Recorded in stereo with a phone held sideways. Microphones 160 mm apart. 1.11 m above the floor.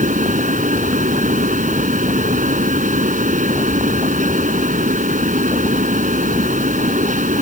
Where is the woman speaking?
No woman speaking in this recording.